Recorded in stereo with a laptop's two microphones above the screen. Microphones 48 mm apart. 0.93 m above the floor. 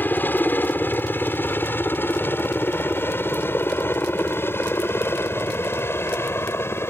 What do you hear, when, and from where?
0.0 s a helicopter: 45° left (ahead or behind); by 6.9 s 60° left (ahead or behind)